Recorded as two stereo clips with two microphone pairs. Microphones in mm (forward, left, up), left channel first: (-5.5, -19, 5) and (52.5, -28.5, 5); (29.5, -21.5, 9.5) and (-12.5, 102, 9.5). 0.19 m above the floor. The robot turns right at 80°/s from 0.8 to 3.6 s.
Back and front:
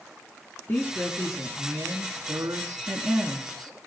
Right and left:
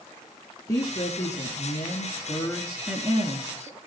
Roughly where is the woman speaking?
Behind right.